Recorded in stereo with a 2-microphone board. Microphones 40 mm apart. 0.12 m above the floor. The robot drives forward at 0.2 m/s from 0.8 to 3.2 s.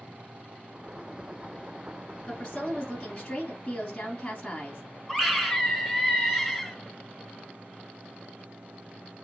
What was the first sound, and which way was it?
A woman speaking, 15° left (ahead or behind).